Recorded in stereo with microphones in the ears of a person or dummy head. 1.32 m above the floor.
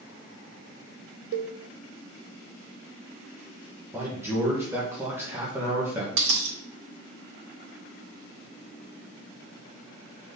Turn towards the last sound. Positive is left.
turn(degrees=-75)  # may be behind; listen again after turning